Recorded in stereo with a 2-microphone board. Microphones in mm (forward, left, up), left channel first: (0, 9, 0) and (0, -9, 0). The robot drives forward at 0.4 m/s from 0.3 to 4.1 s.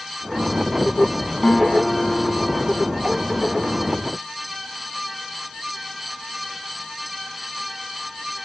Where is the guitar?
25° left (ahead or behind), 2.5 m; by 3.9 s 20° left (ahead or behind), 3 m.